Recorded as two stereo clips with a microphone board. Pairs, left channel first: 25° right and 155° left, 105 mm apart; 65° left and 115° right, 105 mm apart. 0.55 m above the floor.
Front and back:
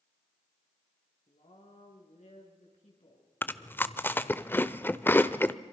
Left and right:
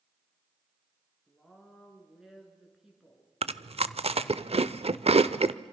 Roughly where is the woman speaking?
Ahead right.